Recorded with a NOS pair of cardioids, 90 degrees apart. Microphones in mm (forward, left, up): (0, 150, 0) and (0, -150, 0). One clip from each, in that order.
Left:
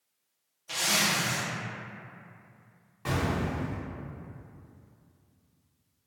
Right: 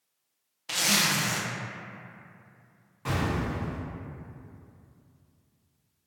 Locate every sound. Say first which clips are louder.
0.7 s a zipper: right 2 dB; 40° right, 0.6 m
3.0 s an explosion: even; 15° left, 0.9 m